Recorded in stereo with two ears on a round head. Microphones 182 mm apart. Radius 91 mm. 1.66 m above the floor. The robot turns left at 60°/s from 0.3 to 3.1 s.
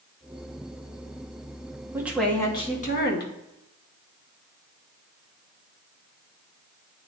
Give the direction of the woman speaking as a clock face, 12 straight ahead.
6 o'clock.